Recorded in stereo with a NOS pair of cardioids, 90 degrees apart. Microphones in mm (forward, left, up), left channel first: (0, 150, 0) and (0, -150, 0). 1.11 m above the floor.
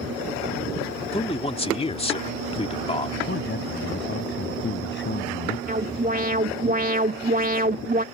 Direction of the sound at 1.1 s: 20° left.